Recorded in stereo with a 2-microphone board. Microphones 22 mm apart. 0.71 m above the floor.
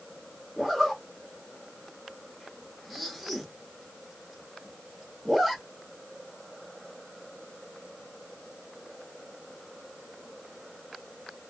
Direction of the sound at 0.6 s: 15° right (ahead or behind).